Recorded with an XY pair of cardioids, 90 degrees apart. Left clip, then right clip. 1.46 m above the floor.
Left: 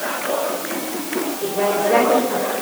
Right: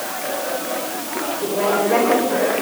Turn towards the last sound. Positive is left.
turn(degrees=0)